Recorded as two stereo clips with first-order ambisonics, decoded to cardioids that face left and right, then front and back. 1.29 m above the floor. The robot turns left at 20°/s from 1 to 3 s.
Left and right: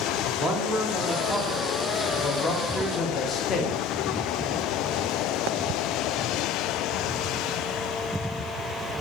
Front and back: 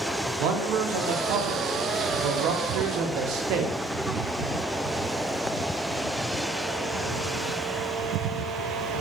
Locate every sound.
0.4 s a man speaking: 175° right, 0.5 m; by 3.8 s 145° left, 0.5 m